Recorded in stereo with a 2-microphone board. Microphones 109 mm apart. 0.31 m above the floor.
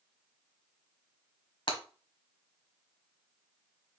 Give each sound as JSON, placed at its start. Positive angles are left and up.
{"t": 1.7, "sound": "breaking glass", "side_deg": 50, "distance_m": 1.2}